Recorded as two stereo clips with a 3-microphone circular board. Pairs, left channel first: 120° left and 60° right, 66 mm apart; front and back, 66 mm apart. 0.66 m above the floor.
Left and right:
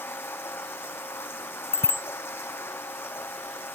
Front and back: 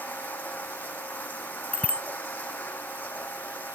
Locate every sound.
0.0 s running water: 65° left
1.7 s a bicycle bell: 70° left